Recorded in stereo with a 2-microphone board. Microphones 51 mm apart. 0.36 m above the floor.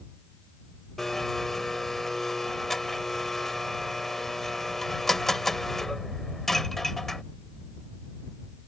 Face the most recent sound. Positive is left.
turn(degrees=5)  # may be behind; listen again after turning